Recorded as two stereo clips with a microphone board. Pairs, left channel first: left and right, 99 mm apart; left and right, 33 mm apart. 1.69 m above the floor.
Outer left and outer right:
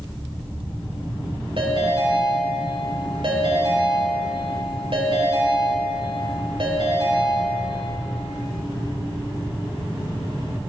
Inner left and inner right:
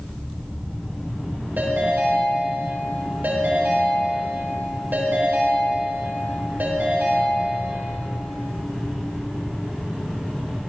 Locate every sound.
1.6 s a ringtone: 60° right (ahead or behind), 4.5 m